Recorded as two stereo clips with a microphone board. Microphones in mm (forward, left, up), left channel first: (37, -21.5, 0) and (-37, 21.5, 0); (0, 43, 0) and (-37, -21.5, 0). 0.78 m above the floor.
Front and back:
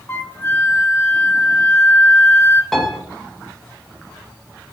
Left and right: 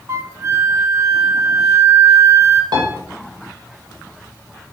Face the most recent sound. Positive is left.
turn(degrees=-115)